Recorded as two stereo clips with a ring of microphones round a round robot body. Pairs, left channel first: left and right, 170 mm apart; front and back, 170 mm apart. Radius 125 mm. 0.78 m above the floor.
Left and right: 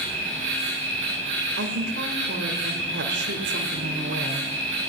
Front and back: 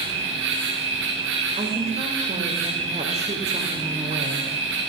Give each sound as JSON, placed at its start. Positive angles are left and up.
{"t": 0.0, "sound": "an insect", "azimuth_deg": -155, "distance_m": 8.5}
{"t": 1.6, "sound": "a woman speaking", "azimuth_deg": -120, "distance_m": 2.5}